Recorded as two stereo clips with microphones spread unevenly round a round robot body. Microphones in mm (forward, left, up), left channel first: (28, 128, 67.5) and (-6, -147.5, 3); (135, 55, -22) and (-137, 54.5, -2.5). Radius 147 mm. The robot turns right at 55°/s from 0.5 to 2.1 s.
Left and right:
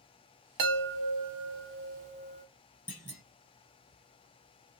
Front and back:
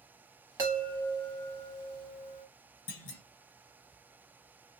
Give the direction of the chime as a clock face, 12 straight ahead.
4 o'clock.